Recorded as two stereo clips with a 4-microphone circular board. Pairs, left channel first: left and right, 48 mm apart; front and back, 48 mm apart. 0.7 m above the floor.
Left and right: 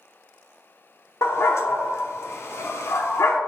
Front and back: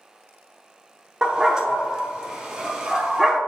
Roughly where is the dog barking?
Left.